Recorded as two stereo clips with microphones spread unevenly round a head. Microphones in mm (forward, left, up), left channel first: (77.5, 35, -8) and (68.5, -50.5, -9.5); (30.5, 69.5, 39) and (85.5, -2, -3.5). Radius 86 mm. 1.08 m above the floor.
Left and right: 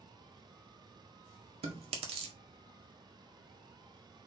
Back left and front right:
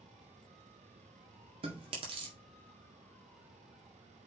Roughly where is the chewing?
Right.